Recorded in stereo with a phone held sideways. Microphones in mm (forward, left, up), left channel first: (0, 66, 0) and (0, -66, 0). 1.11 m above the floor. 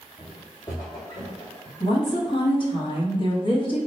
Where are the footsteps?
15° left (ahead or behind), 1.7 m; by 1.7 s 40° left (ahead or behind), 3 m.